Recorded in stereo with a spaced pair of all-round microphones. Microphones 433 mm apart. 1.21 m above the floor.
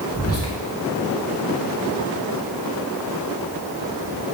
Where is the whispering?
35° left (ahead or behind), 0.8 m.